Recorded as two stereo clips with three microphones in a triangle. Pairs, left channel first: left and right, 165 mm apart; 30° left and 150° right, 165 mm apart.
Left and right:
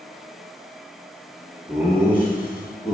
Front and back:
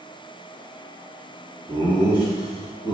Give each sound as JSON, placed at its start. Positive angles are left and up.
{"t": 1.7, "sound": "laughter", "azimuth_deg": -160, "distance_m": 1.0}